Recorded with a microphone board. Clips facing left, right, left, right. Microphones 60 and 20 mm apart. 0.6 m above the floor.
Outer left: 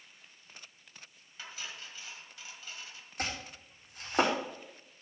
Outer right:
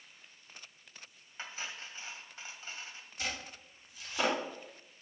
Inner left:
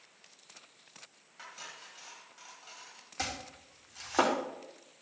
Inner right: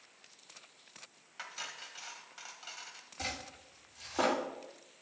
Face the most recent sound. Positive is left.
turn(degrees=55)  # may be behind; listen again after turning